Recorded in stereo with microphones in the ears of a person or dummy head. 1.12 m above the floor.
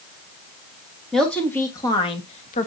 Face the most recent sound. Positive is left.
turn(degrees=45)  # may be behind; listen again after turning